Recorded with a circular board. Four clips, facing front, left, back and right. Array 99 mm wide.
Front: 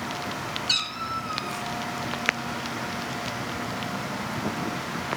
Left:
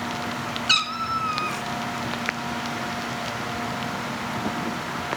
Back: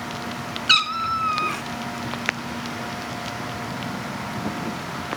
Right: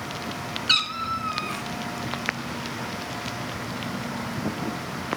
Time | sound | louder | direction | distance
0.7 | a cat meowing | left 2 dB, back 8 dB | 170° left | 0.8 m